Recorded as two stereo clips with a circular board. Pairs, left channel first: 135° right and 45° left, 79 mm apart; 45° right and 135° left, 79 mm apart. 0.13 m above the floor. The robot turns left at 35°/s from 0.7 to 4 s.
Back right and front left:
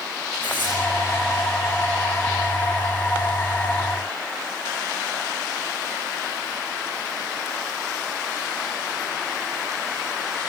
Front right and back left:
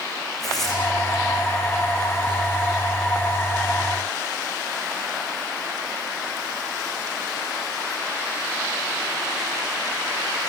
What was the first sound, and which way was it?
Tearing paper, 135° right.